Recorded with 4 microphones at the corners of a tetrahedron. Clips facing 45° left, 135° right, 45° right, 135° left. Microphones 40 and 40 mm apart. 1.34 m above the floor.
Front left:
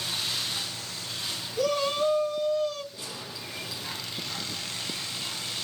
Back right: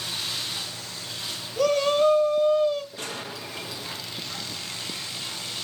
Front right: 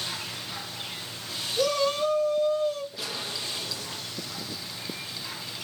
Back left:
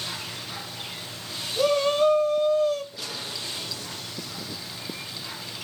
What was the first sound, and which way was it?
A shout, 170° right.